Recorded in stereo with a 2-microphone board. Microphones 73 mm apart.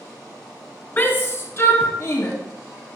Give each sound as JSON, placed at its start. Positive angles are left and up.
{"t": 1.0, "sound": "a shout", "side_deg": 30, "distance_m": 1.7}